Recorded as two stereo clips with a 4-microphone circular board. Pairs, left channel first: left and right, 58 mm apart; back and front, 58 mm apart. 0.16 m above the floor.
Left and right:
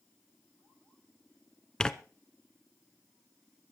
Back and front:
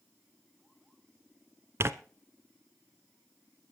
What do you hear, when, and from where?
1.8 s tearing paper: 20° left, 0.8 m